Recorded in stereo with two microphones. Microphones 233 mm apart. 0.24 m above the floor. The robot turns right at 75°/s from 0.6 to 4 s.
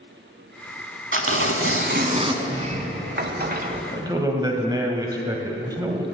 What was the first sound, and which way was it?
Tearing paper, 115° right.